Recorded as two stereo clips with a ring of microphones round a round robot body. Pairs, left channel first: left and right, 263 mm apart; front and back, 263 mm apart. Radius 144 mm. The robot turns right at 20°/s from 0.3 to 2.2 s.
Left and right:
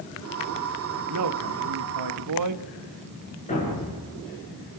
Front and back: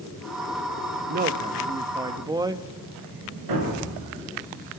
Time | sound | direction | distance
1.1 | a man speaking | 125° right | 1.1 m
3.5 | a thud | 160° left | 6.5 m